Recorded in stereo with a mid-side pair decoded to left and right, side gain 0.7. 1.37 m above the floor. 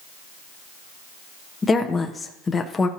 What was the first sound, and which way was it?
A woman speaking, 20° left.